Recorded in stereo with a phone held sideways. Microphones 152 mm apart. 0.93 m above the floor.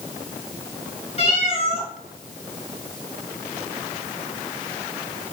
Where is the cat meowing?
40° left (ahead or behind), 3.5 m.